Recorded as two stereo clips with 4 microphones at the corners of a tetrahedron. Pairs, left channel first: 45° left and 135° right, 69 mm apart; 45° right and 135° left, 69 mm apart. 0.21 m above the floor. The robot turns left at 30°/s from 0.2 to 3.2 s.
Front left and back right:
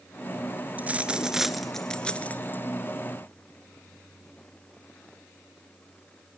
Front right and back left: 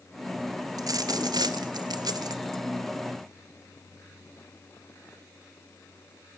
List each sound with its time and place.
0.8 s a dropped coin: 160° left, 1.2 m; by 2.6 s 105° left, 1.2 m